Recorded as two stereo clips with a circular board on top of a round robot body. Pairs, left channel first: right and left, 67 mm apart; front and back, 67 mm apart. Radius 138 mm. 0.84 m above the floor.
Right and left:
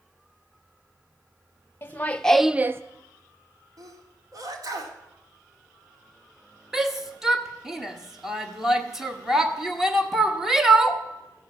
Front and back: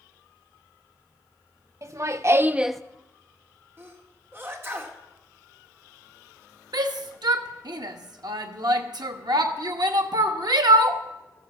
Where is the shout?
170° left, 1.4 m.